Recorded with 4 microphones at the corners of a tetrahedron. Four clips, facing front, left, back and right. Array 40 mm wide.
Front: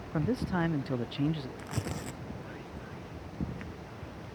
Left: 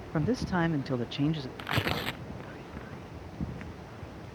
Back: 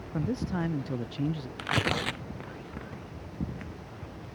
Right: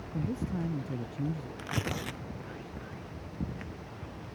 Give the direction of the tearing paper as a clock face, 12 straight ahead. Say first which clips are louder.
Left 5 dB, back 10 dB; 7 o'clock.